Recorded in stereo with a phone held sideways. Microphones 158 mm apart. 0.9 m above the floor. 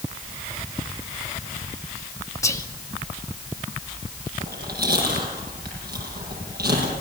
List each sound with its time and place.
2.4 s whispering: 20° left (ahead or behind), 2 m
4.4 s chewing: 85° right, 8.5 m